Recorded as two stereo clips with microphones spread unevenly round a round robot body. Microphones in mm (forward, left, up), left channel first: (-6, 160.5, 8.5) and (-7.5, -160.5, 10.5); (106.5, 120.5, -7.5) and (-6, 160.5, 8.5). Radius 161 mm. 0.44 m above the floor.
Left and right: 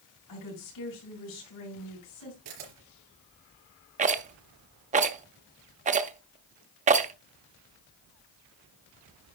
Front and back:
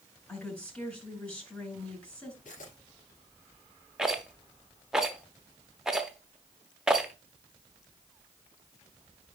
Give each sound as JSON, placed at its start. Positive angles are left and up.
{"t": 0.3, "sound": "a woman speaking", "azimuth_deg": 60, "distance_m": 5.5}
{"t": 2.5, "sound": "a camera shutter", "azimuth_deg": -75, "distance_m": 4.0}
{"t": 4.0, "sound": "a rattle", "azimuth_deg": -105, "distance_m": 0.6}